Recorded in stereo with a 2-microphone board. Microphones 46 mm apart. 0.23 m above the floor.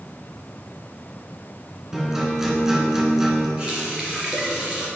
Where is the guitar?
10° right (ahead or behind), 2 m.